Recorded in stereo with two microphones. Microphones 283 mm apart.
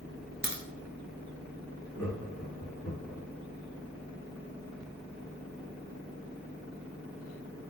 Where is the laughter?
10° left (ahead or behind), 1.7 m.